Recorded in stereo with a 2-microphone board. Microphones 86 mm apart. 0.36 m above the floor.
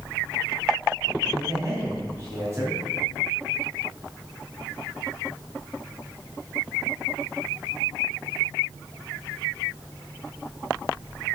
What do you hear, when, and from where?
1.3 s a man speaking: 20° right (ahead or behind), 3 m